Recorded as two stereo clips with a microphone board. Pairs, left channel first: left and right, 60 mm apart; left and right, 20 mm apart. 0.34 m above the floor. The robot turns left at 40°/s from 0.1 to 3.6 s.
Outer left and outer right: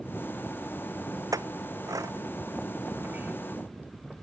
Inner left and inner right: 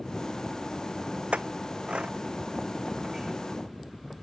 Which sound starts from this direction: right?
A clink, at 1.3 s.